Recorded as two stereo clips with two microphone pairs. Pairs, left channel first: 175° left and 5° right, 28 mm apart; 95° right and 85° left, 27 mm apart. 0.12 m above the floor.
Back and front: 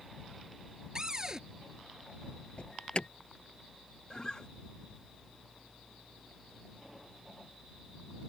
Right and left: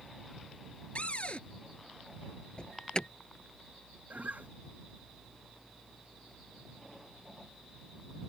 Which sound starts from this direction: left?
A guitar, at 4.1 s.